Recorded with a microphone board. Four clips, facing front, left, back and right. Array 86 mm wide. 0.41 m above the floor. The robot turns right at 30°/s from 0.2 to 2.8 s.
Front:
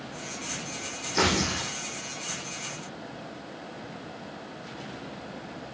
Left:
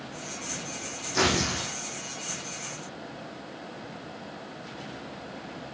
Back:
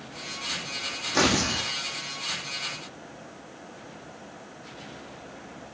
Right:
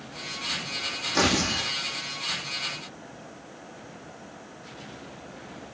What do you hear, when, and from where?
1.1 s tearing paper: 165° right, 5 m; by 1.7 s 145° right, 5 m